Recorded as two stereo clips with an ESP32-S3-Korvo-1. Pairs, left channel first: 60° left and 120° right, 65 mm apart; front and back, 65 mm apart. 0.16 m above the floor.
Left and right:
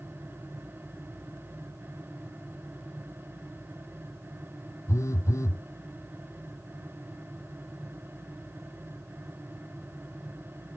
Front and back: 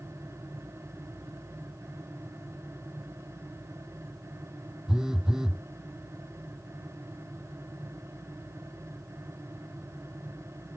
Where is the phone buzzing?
100° left.